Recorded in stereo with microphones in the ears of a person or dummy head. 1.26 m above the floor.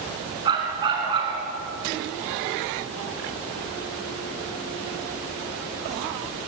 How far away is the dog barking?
About 6 m.